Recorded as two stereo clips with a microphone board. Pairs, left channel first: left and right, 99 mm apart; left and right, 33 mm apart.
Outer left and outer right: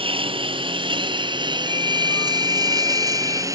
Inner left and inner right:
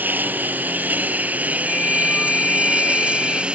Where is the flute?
35° left (ahead or behind).